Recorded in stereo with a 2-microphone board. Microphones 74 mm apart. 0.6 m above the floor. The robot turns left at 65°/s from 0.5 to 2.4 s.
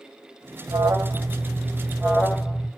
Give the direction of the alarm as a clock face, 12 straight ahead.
2 o'clock.